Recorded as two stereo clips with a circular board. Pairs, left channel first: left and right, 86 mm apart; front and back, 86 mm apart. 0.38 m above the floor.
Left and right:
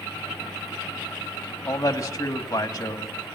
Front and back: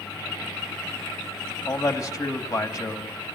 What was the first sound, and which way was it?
A man speaking, 45° left.